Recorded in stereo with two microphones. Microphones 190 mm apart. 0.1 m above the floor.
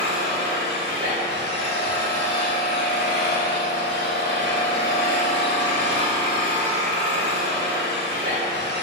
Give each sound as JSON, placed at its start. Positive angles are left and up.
{"t": 0.0, "sound": "an engine running", "side_deg": -70, "distance_m": 3.0}